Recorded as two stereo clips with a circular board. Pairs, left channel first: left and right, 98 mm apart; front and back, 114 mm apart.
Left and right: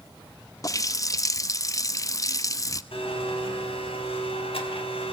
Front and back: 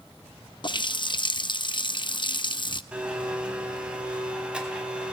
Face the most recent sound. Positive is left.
turn(degrees=100)